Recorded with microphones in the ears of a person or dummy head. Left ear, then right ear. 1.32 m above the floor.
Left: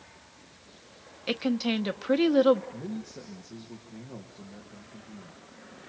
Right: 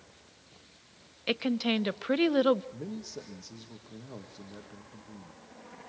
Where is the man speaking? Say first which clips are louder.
Left 1 dB; 80° right, 2.5 m.